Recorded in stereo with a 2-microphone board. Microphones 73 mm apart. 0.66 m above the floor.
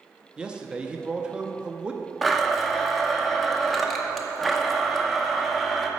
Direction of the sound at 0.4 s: 15° right (ahead or behind).